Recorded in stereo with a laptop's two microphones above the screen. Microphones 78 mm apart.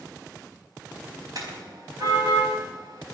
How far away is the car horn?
About 4.5 m.